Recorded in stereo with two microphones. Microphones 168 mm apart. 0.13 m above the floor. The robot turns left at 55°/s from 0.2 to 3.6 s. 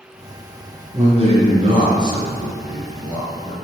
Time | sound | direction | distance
0.9 | a man speaking | 75° right | 1.4 m